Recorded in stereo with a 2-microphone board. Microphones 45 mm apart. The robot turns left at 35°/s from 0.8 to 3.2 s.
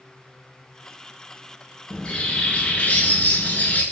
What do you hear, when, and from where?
1.9 s a bird: 155° left, 0.7 m; by 3.8 s 110° left, 0.7 m